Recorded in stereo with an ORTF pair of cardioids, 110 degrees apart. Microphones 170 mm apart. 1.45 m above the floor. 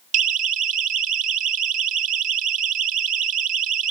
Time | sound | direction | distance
0.1 | a siren | 50° right | ?